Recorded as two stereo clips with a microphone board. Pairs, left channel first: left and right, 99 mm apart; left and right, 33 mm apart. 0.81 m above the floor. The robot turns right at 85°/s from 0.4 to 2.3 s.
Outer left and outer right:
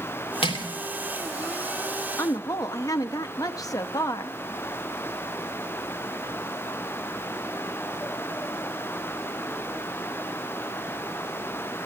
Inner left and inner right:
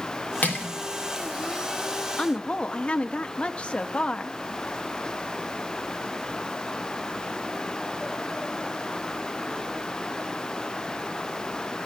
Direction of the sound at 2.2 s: 30° left (ahead or behind).